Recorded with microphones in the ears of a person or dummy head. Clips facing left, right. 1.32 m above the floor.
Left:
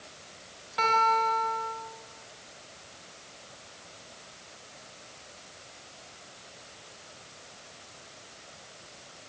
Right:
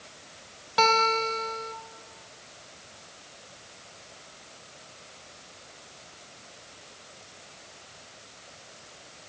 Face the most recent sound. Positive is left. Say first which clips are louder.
# right 2 dB
turn(degrees=-65)  # may be behind; listen again after turning